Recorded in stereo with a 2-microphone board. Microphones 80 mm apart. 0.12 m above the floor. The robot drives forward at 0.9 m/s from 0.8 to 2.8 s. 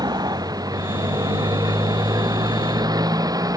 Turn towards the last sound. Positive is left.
turn(degrees=-45)  # may be behind; listen again after turning